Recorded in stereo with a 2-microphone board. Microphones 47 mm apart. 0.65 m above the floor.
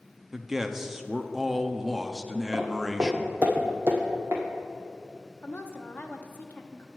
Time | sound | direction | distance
0.3 | a man speaking | 10° right (ahead or behind) | 0.6 m
2.5 | footsteps | 25° right (ahead or behind) | 1.5 m
5.4 | a woman speaking | 35° left (ahead or behind) | 0.8 m